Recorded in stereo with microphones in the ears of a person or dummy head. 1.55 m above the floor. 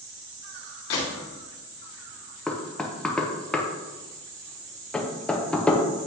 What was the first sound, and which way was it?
A gunshot, 60° left (ahead or behind).